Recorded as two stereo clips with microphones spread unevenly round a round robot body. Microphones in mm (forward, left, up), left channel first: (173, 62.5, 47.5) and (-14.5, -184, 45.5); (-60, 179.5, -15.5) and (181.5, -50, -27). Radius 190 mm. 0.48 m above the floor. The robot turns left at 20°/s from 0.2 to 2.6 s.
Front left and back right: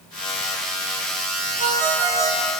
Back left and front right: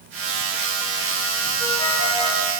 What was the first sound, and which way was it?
A ringtone, 140° right.